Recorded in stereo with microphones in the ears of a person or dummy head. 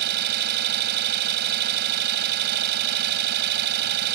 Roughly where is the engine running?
Right.